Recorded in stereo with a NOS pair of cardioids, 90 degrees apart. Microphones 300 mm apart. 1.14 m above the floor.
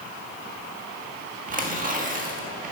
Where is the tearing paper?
25° right, 1.6 m.